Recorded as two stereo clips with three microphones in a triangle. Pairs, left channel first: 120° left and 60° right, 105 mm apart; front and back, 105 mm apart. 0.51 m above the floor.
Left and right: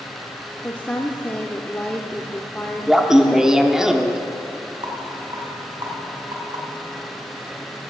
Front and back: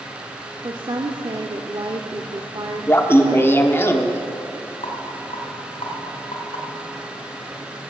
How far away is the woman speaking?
About 1.0 m.